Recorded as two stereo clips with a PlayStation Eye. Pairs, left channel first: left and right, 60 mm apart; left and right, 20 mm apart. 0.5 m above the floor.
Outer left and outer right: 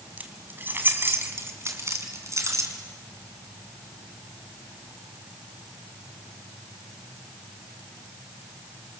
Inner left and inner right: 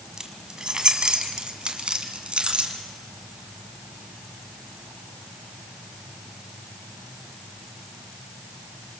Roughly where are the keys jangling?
Right.